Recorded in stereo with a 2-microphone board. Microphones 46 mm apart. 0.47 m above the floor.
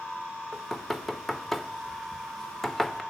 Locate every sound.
0.5 s knocking: 5° left (ahead or behind), 0.7 m